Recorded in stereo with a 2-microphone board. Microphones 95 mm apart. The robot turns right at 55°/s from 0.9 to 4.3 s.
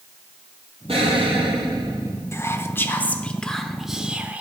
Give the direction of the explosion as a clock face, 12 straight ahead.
3 o'clock.